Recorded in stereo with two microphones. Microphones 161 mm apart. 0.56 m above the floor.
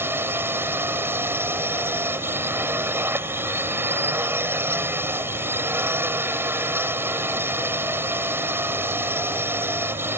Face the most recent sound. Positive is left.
turn(degrees=-15)  # may be behind; listen again after turning